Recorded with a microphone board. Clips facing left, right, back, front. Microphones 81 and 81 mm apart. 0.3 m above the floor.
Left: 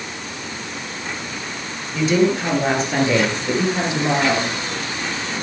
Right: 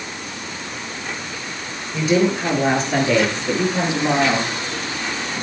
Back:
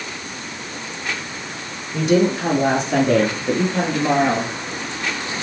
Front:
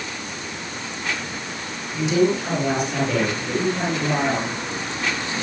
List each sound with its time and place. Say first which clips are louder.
1.9 s a woman speaking: left 1 dB, back 2 dB; 170° right, 6 m; by 4.5 s 160° left, 8 m